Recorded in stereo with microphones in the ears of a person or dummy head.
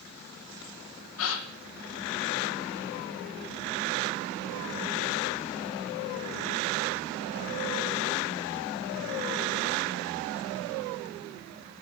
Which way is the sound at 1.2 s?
85° left.